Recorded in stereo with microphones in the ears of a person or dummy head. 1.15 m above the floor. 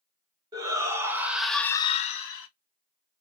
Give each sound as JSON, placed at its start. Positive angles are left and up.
{"t": 0.5, "sound": "a shout", "side_deg": -25, "distance_m": 1.1}